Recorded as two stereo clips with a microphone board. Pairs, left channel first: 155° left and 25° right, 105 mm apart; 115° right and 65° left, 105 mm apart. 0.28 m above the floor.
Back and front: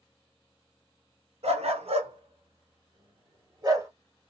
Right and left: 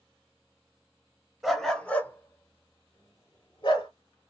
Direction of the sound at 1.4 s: 20° right.